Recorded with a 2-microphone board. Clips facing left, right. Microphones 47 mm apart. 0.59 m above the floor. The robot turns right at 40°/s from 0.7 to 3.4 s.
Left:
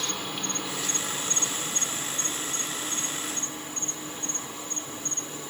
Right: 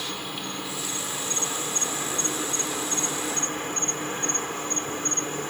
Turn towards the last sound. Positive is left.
turn(degrees=-65)